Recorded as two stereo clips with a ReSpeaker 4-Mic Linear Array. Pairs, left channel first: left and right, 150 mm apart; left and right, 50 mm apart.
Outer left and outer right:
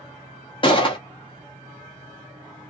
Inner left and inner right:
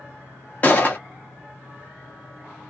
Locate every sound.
0.6 s a gunshot: 35° left (ahead or behind), 1.1 m